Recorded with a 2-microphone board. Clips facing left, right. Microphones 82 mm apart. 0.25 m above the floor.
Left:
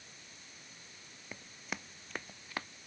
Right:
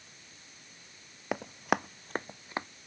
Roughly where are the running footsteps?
Right.